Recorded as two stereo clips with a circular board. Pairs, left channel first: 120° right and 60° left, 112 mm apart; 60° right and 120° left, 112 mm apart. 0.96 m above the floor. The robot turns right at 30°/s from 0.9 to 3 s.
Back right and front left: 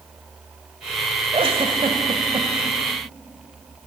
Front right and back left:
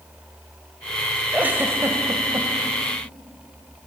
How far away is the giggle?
About 1.1 m.